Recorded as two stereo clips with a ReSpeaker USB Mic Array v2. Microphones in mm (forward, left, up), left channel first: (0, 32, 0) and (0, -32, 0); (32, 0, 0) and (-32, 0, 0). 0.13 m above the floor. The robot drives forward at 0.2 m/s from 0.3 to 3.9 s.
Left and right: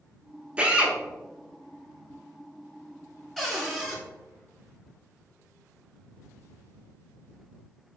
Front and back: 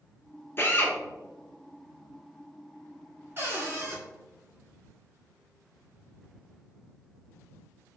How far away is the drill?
About 0.8 m.